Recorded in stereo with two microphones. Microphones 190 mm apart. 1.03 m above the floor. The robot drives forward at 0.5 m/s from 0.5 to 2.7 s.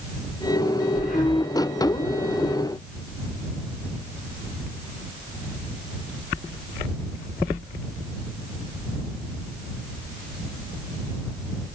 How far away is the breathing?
About 5 m.